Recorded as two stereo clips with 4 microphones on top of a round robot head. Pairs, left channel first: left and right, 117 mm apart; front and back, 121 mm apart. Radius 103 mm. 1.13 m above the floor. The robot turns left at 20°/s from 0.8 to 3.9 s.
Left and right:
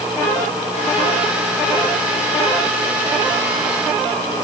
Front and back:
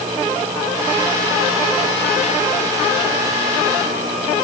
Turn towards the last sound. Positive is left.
No sound to turn to.